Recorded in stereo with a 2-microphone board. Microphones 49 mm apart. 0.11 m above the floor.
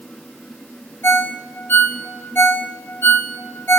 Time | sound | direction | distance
1.0 | a ringtone | 55° left (ahead or behind) | 0.8 m